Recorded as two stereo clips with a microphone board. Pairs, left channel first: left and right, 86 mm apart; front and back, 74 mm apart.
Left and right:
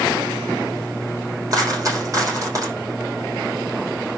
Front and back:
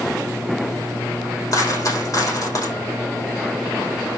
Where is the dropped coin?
40° right, 5 m.